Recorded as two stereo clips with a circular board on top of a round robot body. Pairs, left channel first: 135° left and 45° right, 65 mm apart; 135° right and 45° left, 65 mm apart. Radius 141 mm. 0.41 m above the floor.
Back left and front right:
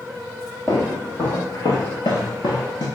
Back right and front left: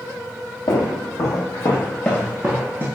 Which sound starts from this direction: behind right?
Footsteps, at 0.7 s.